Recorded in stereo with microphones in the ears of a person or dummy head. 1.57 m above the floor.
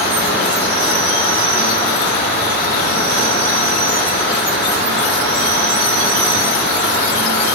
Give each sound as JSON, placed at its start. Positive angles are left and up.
{"t": 0.0, "sound": "an insect", "side_deg": -60, "distance_m": 1.2}